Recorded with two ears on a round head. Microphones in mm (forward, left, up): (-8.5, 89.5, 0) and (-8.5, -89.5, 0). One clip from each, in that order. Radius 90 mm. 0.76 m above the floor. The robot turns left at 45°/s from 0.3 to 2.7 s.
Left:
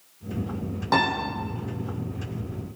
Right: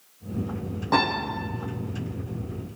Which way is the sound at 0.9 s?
30° left (ahead or behind).